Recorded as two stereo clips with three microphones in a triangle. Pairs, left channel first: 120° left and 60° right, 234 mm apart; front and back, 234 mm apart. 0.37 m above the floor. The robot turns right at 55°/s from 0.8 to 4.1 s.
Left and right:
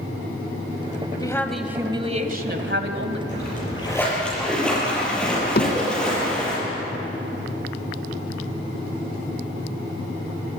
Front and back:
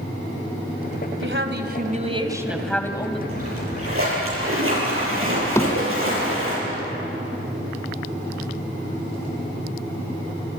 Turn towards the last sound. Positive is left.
turn(degrees=80)